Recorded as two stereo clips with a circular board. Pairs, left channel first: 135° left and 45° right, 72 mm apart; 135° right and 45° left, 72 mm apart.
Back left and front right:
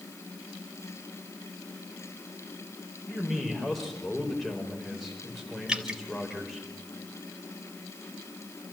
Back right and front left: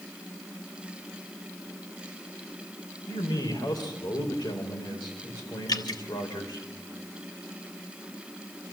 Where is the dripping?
125° right, 1.7 m.